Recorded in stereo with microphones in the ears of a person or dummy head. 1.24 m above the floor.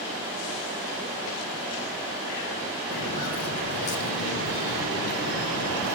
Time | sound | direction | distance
2.9 | footsteps | 70° left (ahead or behind) | 4 m